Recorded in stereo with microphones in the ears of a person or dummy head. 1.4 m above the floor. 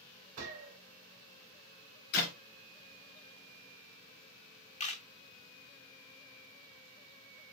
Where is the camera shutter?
35° left (ahead or behind), 0.7 m.